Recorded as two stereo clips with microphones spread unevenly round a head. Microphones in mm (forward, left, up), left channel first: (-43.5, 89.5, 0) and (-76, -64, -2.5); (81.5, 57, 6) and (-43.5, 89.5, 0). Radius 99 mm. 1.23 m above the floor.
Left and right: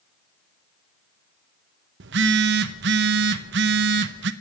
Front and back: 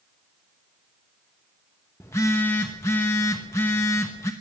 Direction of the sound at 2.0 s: 90° right.